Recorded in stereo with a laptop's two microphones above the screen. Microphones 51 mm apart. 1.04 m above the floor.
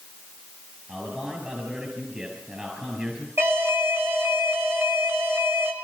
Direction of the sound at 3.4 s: 60° right (ahead or behind).